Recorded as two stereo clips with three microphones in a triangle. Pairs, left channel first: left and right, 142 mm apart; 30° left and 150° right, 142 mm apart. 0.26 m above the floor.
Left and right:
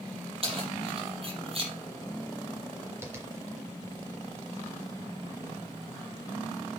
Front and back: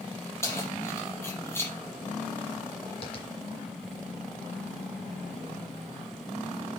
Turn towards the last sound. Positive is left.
turn(degrees=-20)